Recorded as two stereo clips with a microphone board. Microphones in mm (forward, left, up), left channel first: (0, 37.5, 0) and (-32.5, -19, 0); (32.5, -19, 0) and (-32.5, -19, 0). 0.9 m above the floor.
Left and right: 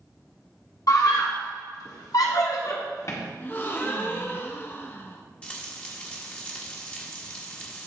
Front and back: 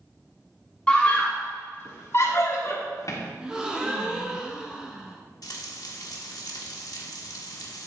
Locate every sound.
0.9 s a scream: 70° left, 1.8 m; by 3.2 s 25° left, 1.8 m
3.4 s a gasp: 105° left, 1.0 m
5.4 s frying: 15° right, 1.2 m